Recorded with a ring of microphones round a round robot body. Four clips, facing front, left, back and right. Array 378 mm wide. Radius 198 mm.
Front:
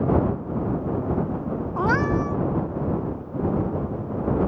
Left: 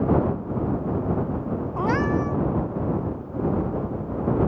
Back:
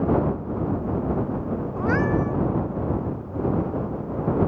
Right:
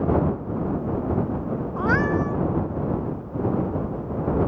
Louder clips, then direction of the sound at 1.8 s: Right 1 dB, front 1 dB; 20° left.